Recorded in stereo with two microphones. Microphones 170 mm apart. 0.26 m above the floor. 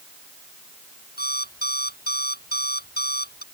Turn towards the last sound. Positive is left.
turn(degrees=65)  # may be behind; listen again after turning